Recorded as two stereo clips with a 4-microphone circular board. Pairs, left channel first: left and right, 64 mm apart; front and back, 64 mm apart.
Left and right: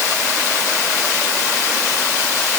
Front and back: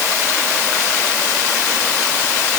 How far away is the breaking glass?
No breaking glass in this recording.